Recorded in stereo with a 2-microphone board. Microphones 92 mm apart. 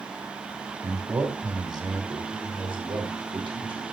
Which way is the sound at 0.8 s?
30° right (ahead or behind).